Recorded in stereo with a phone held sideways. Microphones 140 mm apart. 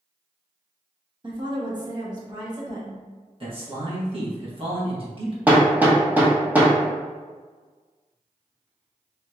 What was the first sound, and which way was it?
A woman speaking, 35° right (ahead or behind).